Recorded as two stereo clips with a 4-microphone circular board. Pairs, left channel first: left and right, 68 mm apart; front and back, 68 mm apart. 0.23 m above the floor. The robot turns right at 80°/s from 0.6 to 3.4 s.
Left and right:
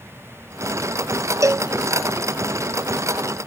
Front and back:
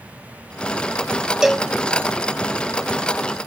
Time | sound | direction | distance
1.4 | a cowbell | 100° right | 0.5 m